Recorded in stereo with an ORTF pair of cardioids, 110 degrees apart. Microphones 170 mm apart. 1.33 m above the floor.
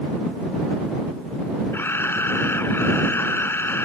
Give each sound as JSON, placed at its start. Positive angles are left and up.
{"t": 1.7, "sound": "a camera shutter", "azimuth_deg": 15}